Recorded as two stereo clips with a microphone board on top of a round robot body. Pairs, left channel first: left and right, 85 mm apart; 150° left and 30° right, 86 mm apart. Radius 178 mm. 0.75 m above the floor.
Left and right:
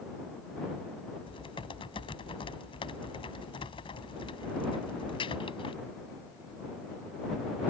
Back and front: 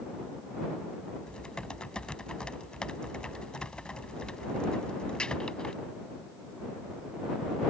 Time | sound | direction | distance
1.3 | typing on a keyboard | 70° left | ?